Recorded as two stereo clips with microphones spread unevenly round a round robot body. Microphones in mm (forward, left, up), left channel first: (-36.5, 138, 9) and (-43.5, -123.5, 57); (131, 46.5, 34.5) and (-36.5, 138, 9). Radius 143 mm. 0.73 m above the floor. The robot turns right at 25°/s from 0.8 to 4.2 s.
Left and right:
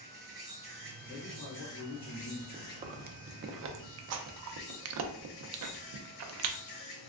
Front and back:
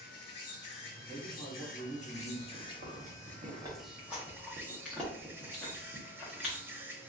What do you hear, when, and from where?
0.0 s an insect: 15° right, 0.8 m; by 7.1 s 70° left, 0.8 m
1.1 s a man speaking: 45° left, 1.9 m; by 2.4 s 80° left, 1.9 m
2.5 s chewing: 165° right, 0.5 m; by 6.6 s 125° right, 0.5 m